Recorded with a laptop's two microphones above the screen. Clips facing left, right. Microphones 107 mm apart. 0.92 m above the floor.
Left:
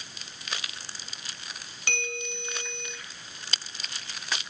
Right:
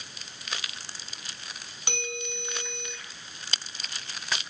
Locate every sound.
1.9 s a bell: 20° right (ahead or behind), 5 m